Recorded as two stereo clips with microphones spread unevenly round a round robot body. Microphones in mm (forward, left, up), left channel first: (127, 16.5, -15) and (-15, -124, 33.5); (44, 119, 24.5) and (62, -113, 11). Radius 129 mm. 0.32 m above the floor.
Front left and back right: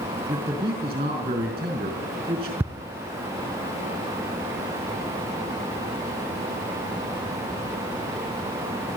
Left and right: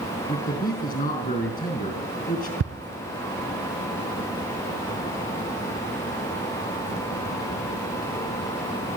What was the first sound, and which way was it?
A man speaking, 155° left.